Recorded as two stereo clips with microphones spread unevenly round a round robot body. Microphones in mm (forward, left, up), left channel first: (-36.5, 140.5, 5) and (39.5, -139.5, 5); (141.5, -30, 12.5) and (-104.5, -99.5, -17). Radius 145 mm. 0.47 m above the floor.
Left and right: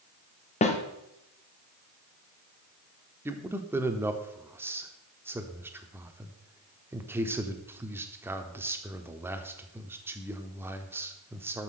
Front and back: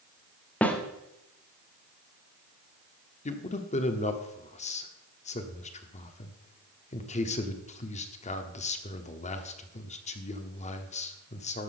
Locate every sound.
0.6 s a snare drum: 110° left, 1.2 m
3.2 s a man speaking: 5° right, 0.9 m